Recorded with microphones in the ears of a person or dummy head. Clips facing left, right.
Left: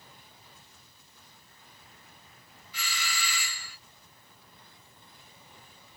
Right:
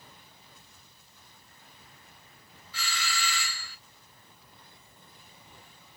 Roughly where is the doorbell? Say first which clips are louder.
Right 2 dB; centre.